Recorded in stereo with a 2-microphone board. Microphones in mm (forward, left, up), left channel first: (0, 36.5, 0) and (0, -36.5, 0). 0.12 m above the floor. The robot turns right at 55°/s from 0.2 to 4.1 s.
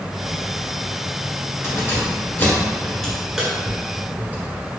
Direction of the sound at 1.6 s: 35° left (ahead or behind).